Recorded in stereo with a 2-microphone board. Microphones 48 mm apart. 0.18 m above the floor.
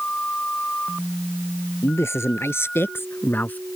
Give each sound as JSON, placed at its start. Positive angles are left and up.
{"t": 1.8, "sound": "a man speaking", "side_deg": 70}